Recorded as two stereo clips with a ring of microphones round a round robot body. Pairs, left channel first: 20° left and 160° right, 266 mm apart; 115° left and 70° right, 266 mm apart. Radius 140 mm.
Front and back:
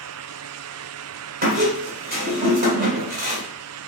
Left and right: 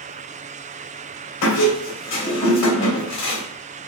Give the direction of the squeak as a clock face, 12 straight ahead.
7 o'clock.